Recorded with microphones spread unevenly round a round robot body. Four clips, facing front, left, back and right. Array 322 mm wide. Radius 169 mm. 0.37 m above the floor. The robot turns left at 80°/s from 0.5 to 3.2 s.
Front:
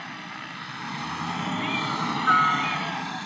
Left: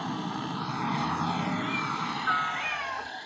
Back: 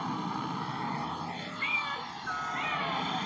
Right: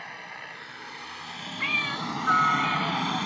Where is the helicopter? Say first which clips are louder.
Left 9 dB, back 5 dB; 120° left; by 3.3 s 95° right.